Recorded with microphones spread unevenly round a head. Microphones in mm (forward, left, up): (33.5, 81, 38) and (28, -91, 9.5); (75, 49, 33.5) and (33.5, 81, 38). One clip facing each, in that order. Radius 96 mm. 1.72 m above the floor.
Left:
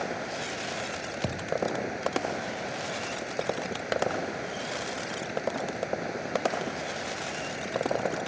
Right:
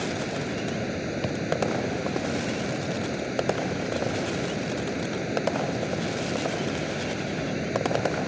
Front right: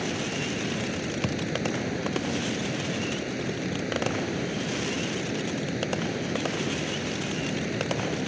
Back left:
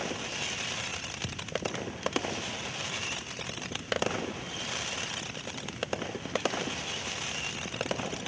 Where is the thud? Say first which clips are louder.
Right 3 dB, front right 10 dB; straight ahead.